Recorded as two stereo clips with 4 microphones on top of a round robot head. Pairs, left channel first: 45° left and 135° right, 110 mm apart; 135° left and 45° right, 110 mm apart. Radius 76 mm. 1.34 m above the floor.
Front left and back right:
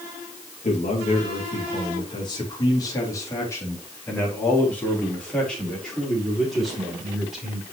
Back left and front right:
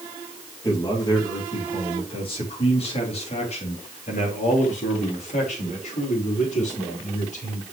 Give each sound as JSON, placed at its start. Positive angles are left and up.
{"t": 0.6, "sound": "a man speaking", "azimuth_deg": 75, "distance_m": 3.0}